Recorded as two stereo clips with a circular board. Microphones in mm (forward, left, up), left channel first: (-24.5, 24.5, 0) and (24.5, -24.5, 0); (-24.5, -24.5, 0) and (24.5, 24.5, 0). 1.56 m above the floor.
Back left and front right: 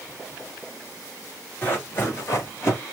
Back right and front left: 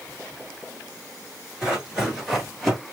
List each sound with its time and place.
1.6 s running footsteps: 115° left, 1.7 m; by 2.8 s 135° left, 2.0 m